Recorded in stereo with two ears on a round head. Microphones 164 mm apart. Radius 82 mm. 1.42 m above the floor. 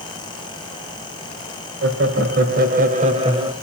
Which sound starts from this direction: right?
Laughter, at 1.8 s.